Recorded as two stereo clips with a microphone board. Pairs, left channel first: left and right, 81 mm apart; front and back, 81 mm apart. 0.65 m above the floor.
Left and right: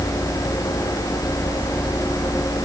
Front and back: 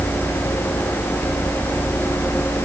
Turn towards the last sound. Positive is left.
No sound to turn to.